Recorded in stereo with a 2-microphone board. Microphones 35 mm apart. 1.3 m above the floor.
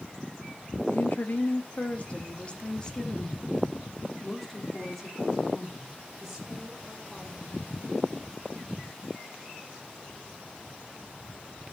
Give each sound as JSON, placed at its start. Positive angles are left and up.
{"t": 0.9, "sound": "a woman speaking", "side_deg": 65, "distance_m": 1.6}